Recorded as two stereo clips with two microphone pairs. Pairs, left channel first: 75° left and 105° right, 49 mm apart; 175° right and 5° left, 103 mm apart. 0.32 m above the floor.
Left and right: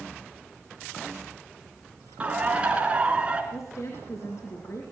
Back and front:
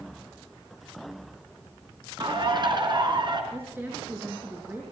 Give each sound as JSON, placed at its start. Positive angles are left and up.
{"t": 2.2, "sound": "a bird", "azimuth_deg": -35, "distance_m": 3.5}
{"t": 3.5, "sound": "a woman speaking", "azimuth_deg": 70, "distance_m": 4.0}